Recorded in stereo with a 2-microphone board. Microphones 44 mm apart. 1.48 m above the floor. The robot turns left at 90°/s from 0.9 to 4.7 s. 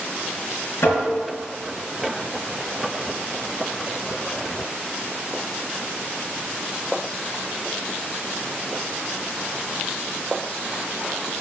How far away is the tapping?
About 3.5 m.